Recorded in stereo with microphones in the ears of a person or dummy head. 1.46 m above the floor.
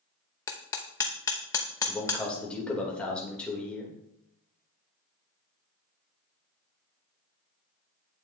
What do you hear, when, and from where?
0.5 s hammering: 15° left (ahead or behind), 0.7 m
1.9 s a man speaking: 5° left (ahead or behind), 1.9 m